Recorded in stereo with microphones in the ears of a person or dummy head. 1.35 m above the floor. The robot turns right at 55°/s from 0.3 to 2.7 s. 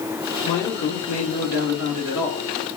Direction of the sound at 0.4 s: 40° left.